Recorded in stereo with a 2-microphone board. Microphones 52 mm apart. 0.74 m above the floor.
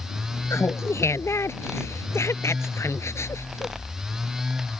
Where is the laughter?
60° left (ahead or behind).